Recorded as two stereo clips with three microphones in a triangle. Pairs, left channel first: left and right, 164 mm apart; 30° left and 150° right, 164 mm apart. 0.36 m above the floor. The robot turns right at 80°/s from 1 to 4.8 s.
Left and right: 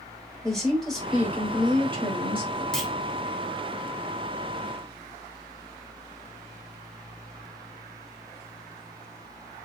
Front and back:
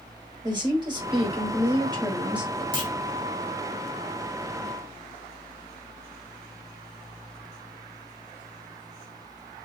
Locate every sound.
0.4 s a woman speaking: 175° left, 1.4 m; by 2.6 s 55° right, 1.4 m
2.7 s a clunk: 175° left, 1.0 m; by 2.9 s 170° right, 1.0 m